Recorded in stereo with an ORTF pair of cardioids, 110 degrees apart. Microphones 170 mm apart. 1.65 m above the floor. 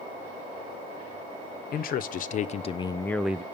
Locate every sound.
1.7 s a man speaking: 65° left, 1.0 m; by 3.4 s 15° right, 0.5 m